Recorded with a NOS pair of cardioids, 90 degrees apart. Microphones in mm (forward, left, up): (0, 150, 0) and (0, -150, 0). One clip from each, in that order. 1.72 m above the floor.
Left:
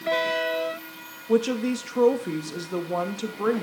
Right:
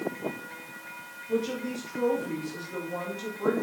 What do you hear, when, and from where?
1.3 s a woman speaking: 70° left, 2.5 m